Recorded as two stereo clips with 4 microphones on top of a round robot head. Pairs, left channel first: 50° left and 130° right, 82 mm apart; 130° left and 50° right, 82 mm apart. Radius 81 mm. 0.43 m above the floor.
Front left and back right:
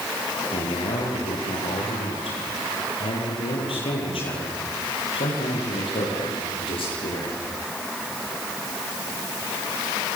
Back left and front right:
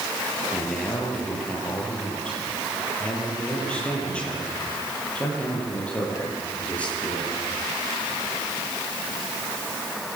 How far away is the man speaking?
About 8.5 m.